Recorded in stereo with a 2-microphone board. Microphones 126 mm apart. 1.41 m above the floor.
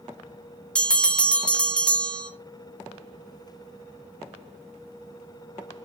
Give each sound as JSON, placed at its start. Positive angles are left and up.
{"t": 0.8, "sound": "a bell", "side_deg": 5, "distance_m": 0.7}